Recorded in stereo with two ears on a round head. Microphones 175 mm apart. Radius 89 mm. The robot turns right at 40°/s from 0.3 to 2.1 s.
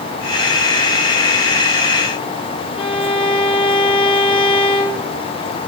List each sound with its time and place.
2.8 s a violin: 30° left (ahead or behind), 4 m